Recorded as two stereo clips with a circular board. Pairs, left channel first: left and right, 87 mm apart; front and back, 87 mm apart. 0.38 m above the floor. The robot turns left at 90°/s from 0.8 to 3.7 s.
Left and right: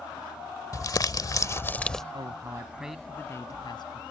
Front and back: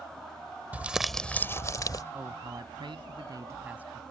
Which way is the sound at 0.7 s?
115° left.